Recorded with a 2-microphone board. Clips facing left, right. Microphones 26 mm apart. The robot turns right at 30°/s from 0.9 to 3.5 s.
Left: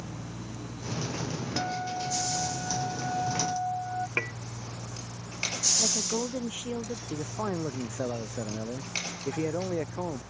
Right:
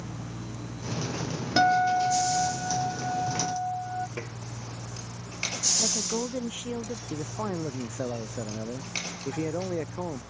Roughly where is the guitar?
Ahead right.